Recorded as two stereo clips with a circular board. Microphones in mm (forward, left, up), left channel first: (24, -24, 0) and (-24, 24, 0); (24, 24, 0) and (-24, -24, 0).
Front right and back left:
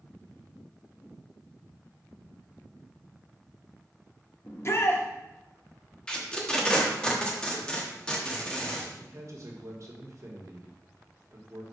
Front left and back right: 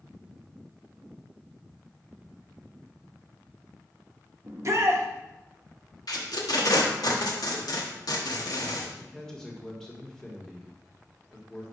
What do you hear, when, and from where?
4.5 s a shout: 90° right, 1.0 m
6.1 s tape being pulled: 30° left, 1.1 m
9.0 s a man speaking: 125° left, 1.3 m